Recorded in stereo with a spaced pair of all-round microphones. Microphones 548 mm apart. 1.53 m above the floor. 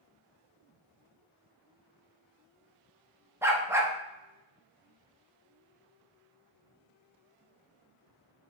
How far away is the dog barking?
About 0.9 m.